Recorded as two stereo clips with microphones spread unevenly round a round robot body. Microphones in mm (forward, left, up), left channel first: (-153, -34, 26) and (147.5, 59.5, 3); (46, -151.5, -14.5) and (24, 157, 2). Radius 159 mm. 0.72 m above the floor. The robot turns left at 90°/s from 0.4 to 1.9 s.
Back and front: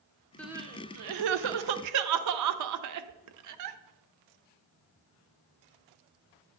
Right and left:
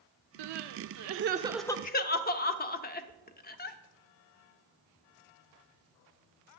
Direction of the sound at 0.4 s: 110° left.